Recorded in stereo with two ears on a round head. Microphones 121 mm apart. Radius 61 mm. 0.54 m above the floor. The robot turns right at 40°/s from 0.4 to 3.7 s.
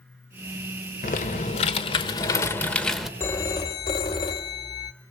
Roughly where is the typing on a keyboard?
Left.